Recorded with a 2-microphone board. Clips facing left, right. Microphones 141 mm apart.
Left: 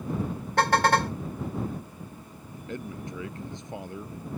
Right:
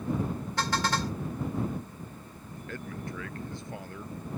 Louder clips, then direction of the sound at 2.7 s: Left 3 dB; 20° left (ahead or behind).